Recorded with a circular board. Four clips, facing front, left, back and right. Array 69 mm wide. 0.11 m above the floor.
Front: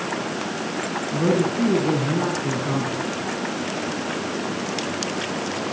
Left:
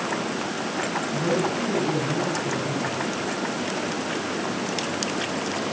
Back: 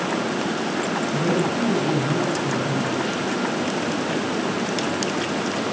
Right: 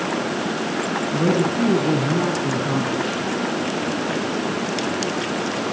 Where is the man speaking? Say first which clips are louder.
Right 5 dB, front 4 dB; 45° right, 7 m.